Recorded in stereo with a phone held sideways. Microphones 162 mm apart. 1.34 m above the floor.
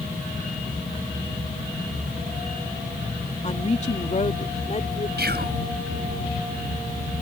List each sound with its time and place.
3.4 s a woman speaking: 45° left (ahead or behind); by 5.1 s 50° left (ahead or behind)
5.2 s whispering: 80° right